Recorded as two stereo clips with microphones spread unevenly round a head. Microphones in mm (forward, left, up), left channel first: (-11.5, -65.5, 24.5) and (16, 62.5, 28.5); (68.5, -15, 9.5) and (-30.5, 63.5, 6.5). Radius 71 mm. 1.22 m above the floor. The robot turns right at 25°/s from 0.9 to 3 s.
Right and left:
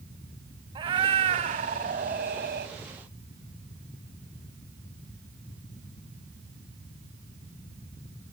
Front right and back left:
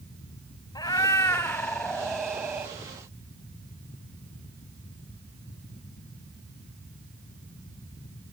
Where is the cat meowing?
20° left, 3 m; by 2.7 s 70° left, 3 m.